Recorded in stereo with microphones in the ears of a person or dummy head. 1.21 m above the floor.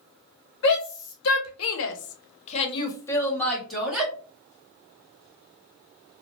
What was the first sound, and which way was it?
A shout, 65° left (ahead or behind).